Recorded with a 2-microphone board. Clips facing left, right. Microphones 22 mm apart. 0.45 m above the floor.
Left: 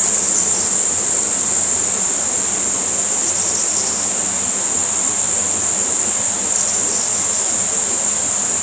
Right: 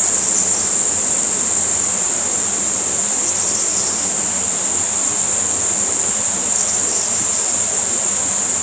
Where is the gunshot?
I don't hear a gunshot.